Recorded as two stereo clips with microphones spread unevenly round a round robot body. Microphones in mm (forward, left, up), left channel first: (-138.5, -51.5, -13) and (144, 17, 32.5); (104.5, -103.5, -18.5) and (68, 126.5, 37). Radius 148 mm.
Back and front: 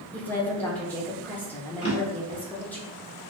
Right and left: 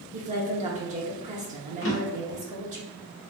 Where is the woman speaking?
145° left, 0.7 m.